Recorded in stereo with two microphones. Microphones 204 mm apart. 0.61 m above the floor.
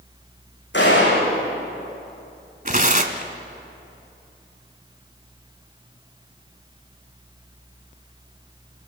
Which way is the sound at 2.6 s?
40° right (ahead or behind).